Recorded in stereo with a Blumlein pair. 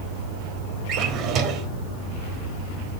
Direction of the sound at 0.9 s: 35° right.